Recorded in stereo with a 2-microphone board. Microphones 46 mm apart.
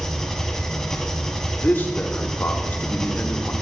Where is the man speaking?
45° left (ahead or behind), 0.8 m.